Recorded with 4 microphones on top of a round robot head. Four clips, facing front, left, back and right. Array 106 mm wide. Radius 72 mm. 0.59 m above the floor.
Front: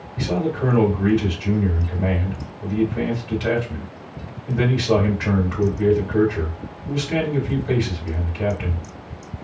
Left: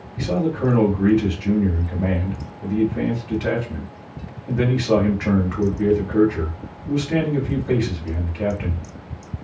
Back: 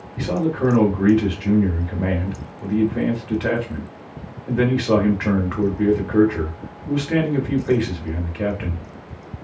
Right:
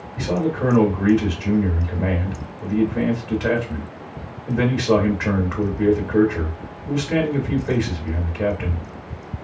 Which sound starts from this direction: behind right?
A man speaking, at 0.2 s.